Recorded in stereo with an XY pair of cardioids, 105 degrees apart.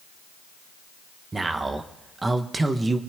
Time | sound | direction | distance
1.3 | a man speaking | 25° right | 1.3 m